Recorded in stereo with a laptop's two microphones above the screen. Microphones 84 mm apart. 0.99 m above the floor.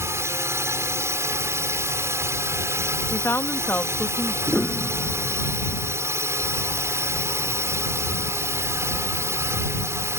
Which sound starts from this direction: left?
A woman speaking, at 3.1 s.